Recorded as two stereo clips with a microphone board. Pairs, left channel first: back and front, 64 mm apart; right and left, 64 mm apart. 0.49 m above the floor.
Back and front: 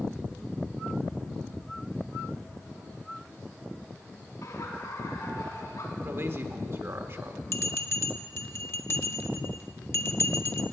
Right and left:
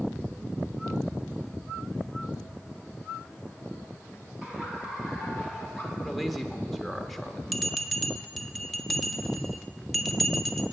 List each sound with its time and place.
4.4 s laughter: 165° left, 4.5 m; by 5.9 s 175° left, 4 m
6.0 s a man speaking: straight ahead, 1.2 m
7.5 s a bell: straight behind, 0.9 m